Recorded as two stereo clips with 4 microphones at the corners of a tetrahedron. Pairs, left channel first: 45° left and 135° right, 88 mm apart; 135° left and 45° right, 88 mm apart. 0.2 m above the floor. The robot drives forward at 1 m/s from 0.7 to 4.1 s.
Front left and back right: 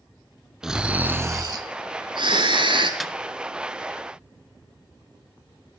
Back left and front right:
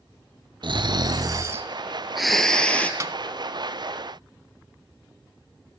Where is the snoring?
50° right, 1.2 m; by 2.9 s 150° right, 1.8 m.